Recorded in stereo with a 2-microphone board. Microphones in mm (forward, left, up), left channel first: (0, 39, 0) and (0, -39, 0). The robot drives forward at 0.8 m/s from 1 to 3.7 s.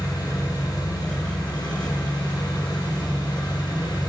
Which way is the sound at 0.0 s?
70° left (ahead or behind).